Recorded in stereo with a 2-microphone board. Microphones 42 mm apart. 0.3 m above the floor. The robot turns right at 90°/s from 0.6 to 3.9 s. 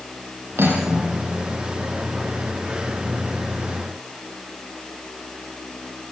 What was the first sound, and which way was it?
Cutlery clinking, 65° right.